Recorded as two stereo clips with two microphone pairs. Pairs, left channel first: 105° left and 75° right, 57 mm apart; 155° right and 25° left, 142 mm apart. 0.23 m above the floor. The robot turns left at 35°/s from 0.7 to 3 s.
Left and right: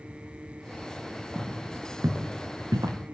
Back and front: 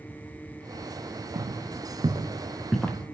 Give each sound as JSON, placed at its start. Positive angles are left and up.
{"t": 1.4, "sound": "footsteps", "azimuth_deg": 0, "distance_m": 2.0}